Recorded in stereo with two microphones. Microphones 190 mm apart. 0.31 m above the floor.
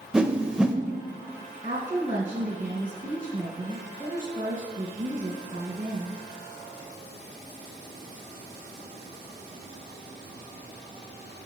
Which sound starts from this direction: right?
A woman speaking, at 1.6 s.